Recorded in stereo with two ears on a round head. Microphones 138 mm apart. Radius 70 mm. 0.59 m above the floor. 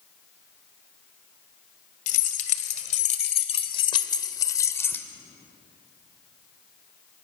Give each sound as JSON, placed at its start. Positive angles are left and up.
{"t": 2.1, "sound": "keys jangling", "side_deg": 60, "distance_m": 2.5}